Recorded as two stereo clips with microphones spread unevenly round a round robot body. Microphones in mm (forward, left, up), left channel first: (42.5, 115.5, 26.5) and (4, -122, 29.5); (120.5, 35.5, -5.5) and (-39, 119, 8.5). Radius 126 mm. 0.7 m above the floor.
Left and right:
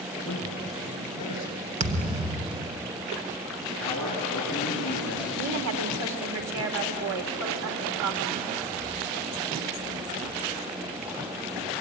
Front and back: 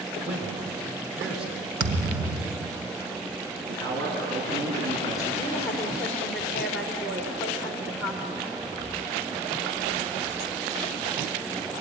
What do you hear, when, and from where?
0.2 s a man speaking: 125° left, 7 m
1.8 s a thud: 165° right, 0.9 m
3.7 s a man speaking: 155° left, 6.5 m
5.4 s a woman speaking: 110° right, 2.5 m